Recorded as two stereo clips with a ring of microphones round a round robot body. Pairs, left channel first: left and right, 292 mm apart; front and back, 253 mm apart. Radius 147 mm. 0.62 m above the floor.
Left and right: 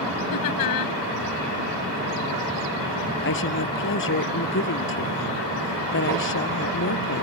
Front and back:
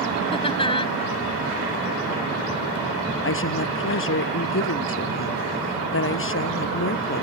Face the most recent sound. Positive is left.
turn(degrees=40)